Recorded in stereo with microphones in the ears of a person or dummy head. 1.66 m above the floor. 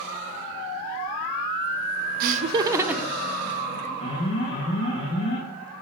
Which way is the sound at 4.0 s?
35° left (ahead or behind).